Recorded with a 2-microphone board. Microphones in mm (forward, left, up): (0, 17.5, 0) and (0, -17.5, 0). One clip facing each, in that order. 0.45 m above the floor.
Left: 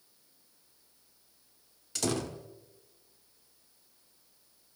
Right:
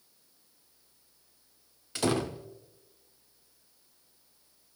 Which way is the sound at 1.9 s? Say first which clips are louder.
Right 4 dB; 25° right (ahead or behind).